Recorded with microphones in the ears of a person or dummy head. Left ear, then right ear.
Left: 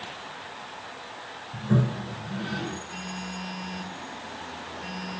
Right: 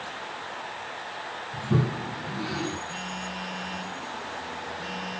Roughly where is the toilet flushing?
Left.